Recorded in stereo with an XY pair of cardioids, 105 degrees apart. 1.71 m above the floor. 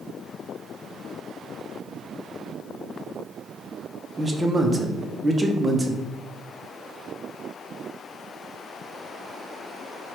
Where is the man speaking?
15° right, 0.7 m.